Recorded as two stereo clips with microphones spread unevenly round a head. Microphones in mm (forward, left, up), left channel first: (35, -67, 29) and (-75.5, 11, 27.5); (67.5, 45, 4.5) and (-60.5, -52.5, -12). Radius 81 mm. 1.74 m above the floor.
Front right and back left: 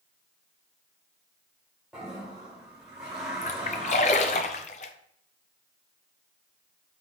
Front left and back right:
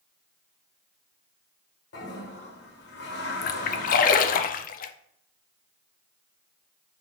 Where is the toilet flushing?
60° left, 1.6 m.